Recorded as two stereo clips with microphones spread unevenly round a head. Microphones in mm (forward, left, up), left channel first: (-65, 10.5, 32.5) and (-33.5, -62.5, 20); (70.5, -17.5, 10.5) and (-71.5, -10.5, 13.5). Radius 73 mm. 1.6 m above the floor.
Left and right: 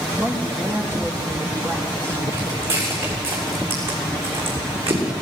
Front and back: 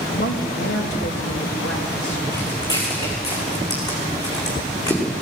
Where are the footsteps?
65° right, 7.5 m; by 5.0 s 70° right, 6 m.